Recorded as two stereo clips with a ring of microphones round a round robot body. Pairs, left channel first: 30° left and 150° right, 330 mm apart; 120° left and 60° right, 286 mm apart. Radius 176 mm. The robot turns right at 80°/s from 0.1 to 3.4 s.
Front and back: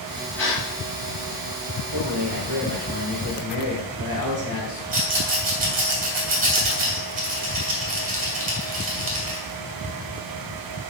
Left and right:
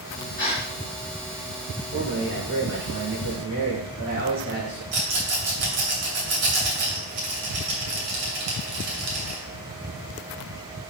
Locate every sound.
0.4 s a gasp: 85° left, 4 m; by 0.6 s 105° left, 4 m
1.9 s a man speaking: 155° right, 4.5 m; by 4.8 s 40° right, 4.5 m
4.9 s a rattle: 85° right, 2.5 m